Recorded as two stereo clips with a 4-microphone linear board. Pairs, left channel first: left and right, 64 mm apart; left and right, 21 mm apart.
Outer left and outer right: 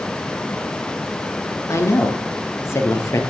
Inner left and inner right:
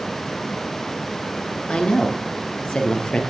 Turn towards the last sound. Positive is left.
turn(degrees=50)  # may be behind; listen again after turning